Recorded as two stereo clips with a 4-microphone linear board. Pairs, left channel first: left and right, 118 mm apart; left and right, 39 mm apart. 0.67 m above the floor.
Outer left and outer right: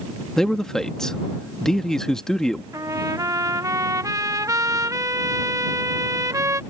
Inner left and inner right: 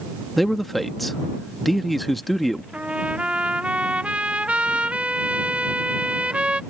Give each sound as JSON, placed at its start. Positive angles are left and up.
{"t": 0.4, "sound": "a man speaking", "side_deg": 5}
{"t": 2.7, "sound": "a trumpet", "side_deg": -30}